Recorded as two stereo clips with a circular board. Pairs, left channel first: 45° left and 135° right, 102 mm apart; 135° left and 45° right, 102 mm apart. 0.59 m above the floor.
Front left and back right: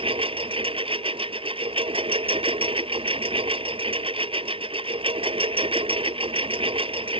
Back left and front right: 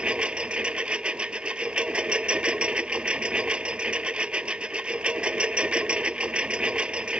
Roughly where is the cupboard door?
I don't hear a cupboard door.